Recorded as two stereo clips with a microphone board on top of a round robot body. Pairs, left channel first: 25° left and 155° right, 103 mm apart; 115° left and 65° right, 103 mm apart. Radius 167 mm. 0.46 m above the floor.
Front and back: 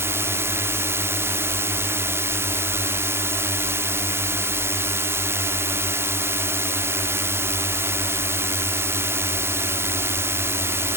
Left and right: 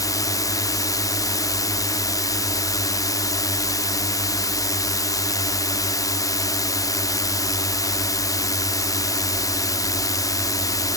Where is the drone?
150° left.